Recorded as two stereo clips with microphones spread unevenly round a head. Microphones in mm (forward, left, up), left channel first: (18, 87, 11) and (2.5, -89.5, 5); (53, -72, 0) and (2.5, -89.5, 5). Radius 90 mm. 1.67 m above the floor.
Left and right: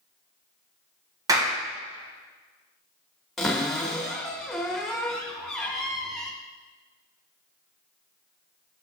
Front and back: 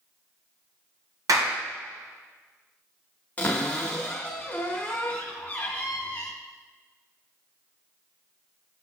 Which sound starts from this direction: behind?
A clap, at 1.3 s.